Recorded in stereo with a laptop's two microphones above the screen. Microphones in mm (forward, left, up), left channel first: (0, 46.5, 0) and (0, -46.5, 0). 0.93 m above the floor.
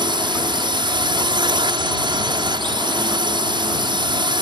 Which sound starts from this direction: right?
A drone, at 0.0 s.